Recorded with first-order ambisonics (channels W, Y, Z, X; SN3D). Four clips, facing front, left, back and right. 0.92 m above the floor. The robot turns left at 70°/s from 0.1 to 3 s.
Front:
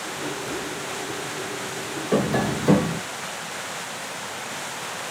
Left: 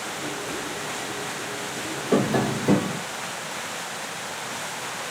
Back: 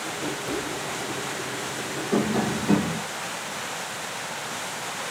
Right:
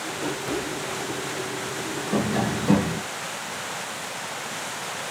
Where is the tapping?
55° left, 0.8 m; by 3.0 s 5° right, 0.8 m.